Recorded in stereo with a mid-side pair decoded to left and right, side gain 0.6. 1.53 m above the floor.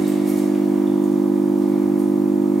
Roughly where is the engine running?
Ahead right.